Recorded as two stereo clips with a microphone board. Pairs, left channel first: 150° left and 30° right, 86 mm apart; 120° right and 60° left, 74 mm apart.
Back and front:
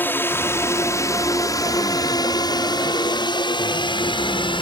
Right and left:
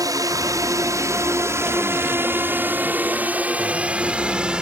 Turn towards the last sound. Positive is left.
turn(degrees=140)